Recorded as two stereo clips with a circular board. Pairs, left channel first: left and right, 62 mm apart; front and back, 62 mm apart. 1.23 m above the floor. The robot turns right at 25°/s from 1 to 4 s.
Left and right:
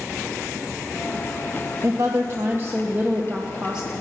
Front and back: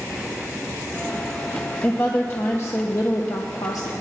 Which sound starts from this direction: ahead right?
A woman speaking, at 1.8 s.